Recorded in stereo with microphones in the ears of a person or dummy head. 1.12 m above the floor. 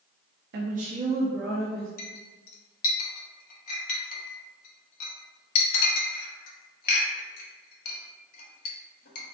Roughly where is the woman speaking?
Right.